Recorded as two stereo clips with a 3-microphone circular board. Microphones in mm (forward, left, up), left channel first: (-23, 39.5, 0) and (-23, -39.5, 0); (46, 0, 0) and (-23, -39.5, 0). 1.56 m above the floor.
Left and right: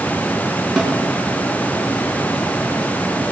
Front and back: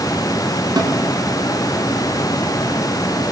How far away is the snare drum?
About 5.5 m.